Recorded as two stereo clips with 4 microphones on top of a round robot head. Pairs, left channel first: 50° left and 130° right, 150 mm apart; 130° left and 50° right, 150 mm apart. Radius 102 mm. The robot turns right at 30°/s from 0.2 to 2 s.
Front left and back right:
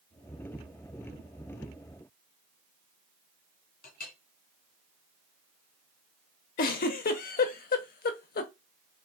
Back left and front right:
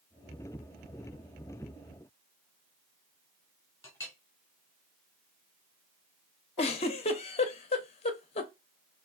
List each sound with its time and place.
3.8 s a clink: 60° left, 1.4 m
6.6 s a giggle: 80° left, 0.6 m